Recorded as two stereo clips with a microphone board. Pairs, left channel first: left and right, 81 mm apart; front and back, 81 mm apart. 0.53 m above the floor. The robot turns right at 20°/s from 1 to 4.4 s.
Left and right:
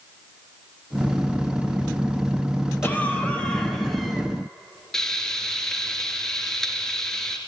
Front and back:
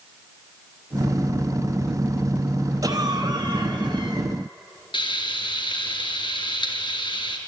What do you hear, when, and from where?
2.8 s a cough: 155° left, 3.5 m; by 4.3 s 175° right, 3.5 m
4.9 s frying: 5° left, 2.5 m